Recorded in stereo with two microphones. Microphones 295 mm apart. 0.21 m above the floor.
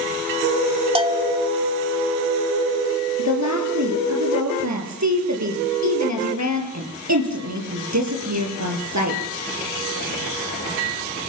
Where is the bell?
20° right (ahead or behind), 0.7 m.